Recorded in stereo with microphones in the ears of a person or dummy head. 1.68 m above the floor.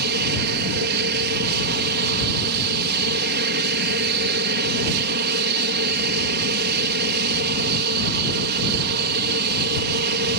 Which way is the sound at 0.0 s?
55° right (ahead or behind).